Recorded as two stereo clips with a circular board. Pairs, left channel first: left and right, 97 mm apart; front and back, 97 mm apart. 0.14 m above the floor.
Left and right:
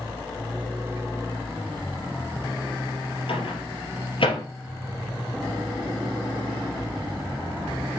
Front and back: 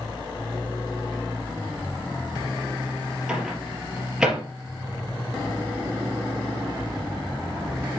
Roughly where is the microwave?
Left.